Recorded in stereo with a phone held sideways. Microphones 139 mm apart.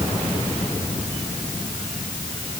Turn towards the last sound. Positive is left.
No sound to turn to.